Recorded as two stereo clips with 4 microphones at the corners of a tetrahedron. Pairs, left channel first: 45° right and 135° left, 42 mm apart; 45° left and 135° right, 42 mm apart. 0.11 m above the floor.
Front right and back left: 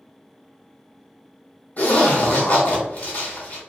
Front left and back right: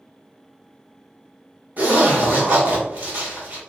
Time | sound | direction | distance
1.8 | a zipper | 90° right | 1.0 m